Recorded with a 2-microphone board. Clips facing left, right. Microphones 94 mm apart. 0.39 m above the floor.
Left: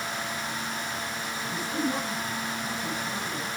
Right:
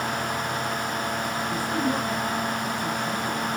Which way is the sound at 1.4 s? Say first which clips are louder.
Right 2 dB; 30° right (ahead or behind).